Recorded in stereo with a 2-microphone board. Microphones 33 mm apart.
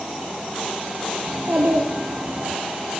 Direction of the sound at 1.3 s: 60° right (ahead or behind).